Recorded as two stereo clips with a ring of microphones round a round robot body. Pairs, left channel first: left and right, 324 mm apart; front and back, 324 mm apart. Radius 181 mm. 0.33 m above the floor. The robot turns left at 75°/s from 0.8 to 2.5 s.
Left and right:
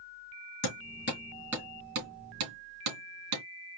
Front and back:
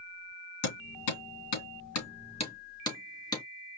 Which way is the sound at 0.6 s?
50° left.